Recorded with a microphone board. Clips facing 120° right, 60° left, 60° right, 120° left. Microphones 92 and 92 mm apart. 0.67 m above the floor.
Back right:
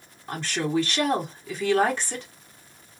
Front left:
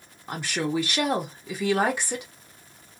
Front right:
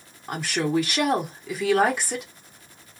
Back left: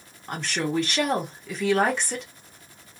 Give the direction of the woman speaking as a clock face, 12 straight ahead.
12 o'clock.